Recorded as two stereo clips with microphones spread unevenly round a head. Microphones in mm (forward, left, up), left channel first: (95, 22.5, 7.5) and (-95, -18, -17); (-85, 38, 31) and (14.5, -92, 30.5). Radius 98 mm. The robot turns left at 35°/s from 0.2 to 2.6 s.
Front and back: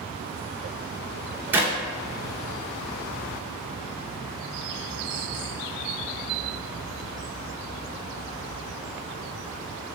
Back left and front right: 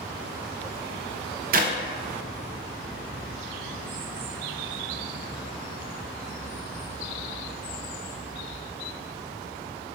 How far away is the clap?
About 0.6 m.